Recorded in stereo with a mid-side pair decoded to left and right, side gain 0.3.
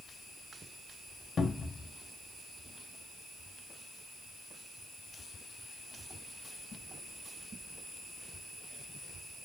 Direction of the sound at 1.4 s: 60° left.